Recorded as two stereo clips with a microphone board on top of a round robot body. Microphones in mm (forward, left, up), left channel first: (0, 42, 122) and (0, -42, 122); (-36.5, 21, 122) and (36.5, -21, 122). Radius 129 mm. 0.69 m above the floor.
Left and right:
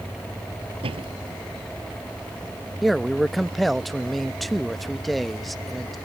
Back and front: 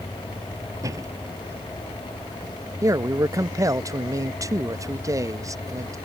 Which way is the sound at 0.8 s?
80° right.